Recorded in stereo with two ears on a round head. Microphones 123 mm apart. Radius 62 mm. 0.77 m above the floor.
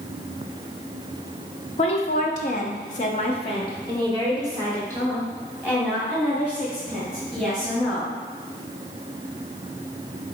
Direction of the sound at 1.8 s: 45° left (ahead or behind).